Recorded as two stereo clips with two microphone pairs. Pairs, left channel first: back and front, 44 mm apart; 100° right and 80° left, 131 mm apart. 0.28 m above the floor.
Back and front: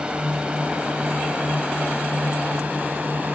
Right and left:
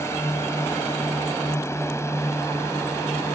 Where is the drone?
50° right; by 3.4 s 40° right.